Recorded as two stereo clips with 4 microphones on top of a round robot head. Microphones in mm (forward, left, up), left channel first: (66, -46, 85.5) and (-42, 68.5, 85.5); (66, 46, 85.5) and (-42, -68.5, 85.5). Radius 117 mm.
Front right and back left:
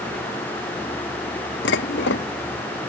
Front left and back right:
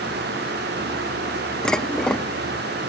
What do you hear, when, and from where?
1.6 s dishes clattering: 40° right